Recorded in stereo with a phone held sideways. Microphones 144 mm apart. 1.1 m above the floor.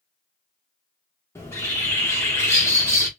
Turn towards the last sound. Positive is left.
turn(degrees=20)  # may be behind; listen again after turning